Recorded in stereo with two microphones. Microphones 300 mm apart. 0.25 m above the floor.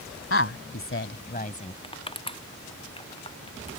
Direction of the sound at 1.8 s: 15° left (ahead or behind).